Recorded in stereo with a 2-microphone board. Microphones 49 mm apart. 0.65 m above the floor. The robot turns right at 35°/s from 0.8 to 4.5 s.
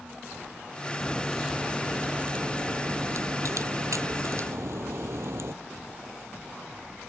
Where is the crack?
175° left; by 5.5 s 60° right.